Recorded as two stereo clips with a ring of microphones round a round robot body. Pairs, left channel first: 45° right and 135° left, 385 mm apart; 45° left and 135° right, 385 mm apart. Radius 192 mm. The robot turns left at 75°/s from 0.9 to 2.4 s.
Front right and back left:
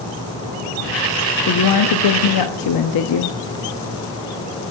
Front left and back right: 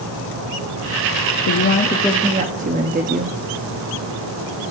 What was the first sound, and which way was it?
A woman speaking, 5° left.